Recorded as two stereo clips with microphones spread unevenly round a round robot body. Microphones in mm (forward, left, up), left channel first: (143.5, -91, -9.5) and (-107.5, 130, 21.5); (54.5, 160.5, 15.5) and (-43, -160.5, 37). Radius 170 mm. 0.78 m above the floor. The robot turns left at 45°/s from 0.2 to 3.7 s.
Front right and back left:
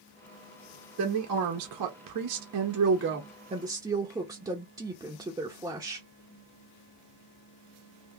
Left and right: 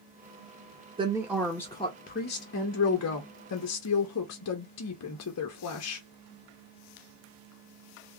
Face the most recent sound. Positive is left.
turn(degrees=55)